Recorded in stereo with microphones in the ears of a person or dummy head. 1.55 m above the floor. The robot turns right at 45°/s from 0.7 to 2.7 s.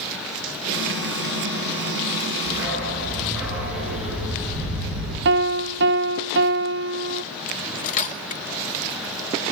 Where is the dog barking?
20° right (ahead or behind), 9.5 m; by 5.2 s 10° right (ahead or behind), 9.5 m.